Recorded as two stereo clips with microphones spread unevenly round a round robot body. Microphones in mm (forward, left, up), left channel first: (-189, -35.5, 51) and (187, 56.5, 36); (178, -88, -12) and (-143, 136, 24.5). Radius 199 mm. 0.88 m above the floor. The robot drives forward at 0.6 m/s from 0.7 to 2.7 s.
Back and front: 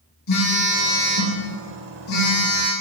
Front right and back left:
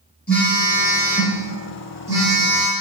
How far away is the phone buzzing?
About 4 m.